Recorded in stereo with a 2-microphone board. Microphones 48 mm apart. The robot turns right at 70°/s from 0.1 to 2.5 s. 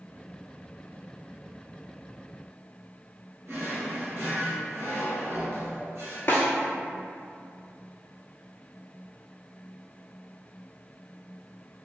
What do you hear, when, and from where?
3.5 s a drawer: 65° right (ahead or behind), 1.3 m
6.3 s a snare drum: 50° left (ahead or behind), 0.7 m